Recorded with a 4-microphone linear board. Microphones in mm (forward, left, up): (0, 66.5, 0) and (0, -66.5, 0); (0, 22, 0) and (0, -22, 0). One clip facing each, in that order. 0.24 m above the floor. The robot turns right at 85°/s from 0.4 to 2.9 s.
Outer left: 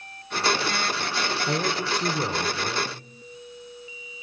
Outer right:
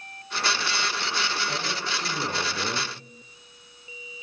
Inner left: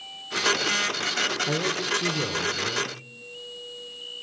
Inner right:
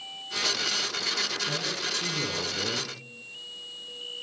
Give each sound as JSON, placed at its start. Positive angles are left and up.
{"t": 1.5, "sound": "a man speaking", "azimuth_deg": 95, "distance_m": 2.5}